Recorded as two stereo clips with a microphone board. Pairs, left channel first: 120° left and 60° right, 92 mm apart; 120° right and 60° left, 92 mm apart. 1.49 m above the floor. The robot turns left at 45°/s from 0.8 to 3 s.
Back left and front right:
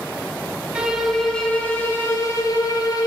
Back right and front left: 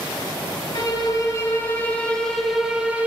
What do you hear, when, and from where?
0.8 s a violin: 140° right, 1.3 m; by 3.1 s 125° left, 1.3 m